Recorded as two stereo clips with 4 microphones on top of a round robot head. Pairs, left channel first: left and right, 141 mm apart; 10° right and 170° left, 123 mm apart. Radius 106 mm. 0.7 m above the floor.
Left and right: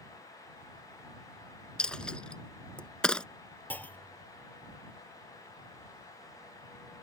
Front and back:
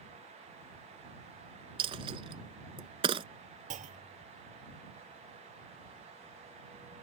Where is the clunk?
165° left.